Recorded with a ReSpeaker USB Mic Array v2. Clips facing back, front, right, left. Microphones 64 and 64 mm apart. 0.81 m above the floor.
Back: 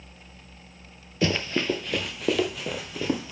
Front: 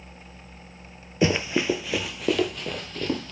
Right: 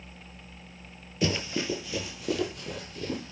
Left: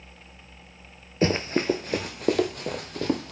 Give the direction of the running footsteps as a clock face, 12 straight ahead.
10 o'clock.